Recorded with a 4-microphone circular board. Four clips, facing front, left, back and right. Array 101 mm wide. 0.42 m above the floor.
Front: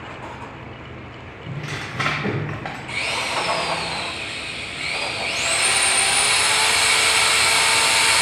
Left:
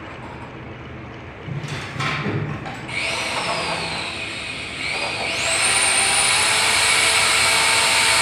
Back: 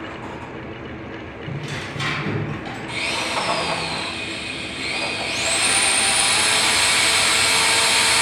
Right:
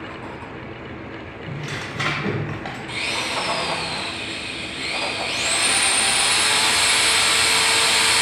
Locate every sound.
1.5 s tearing paper: 20° right, 0.7 m
2.9 s a drill: 55° left, 1.0 m